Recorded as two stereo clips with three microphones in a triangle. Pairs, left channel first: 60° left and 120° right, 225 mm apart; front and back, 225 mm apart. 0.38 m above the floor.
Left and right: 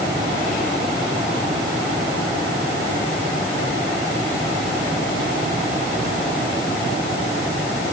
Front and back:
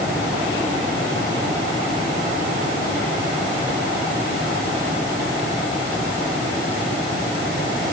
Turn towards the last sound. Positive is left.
No sound to turn to.